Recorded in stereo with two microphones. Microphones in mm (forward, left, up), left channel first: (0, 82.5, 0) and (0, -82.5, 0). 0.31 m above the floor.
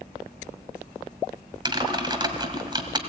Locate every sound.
1.6 s typing on a keyboard: 30° right (ahead or behind), 1.6 m